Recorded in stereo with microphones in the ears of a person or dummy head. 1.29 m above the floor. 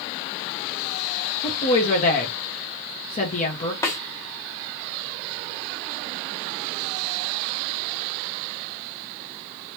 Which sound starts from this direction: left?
A woman speaking, at 1.4 s.